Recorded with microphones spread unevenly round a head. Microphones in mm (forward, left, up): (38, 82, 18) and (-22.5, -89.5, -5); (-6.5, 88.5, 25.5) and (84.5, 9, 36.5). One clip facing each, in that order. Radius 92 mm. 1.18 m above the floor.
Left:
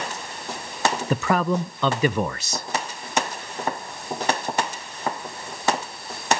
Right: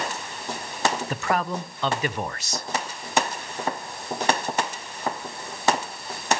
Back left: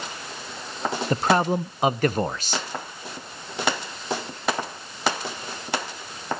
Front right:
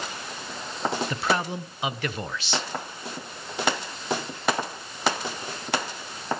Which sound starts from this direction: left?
A man speaking, at 1.1 s.